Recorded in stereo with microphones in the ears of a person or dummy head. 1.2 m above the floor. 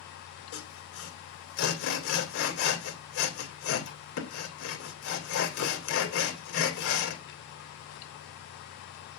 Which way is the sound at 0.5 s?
75° left (ahead or behind).